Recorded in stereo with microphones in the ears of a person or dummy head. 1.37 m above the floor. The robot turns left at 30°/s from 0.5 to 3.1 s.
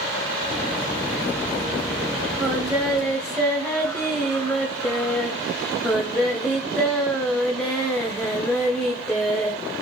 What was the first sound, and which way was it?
Singing, 15° right (ahead or behind).